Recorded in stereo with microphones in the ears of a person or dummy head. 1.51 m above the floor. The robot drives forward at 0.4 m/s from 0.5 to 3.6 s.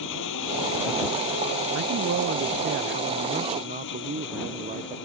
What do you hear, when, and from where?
0.0 s an engine running: 70° left (ahead or behind); by 5.0 s 65° left (ahead or behind)
1.7 s a man speaking: 75° right (ahead or behind); by 5.0 s 40° right (ahead or behind)